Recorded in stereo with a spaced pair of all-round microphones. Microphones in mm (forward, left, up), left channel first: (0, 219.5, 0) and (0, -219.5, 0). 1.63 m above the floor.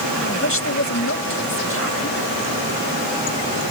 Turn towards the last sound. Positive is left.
turn(degrees=30)  # may be behind; listen again after turning